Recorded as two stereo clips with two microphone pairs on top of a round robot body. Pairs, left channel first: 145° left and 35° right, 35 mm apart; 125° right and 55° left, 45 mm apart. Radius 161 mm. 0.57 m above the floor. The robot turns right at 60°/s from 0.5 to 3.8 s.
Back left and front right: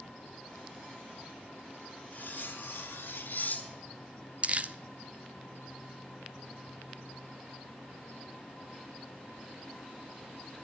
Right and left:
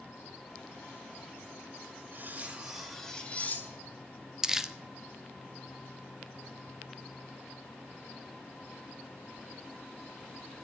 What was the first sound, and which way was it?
Cutlery clinking, 100° left.